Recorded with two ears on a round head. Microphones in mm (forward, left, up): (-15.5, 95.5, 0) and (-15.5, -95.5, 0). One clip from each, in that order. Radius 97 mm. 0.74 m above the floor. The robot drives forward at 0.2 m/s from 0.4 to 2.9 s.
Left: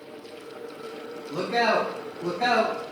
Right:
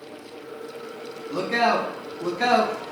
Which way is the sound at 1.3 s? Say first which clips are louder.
Right 2 dB; 35° right (ahead or behind).